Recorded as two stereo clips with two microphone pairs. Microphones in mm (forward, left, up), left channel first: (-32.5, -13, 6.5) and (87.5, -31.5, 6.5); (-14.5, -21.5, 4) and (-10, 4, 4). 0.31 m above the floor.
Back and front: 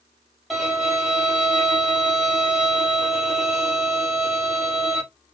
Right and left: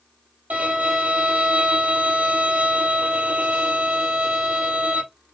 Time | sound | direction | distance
0.5 | a violin | 80° left | 3.5 m